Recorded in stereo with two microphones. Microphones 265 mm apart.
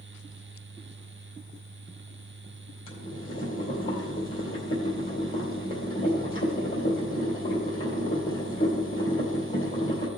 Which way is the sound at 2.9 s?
50° left (ahead or behind).